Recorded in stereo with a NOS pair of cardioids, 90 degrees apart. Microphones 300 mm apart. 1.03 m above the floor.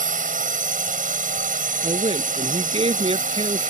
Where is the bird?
I don't hear a bird.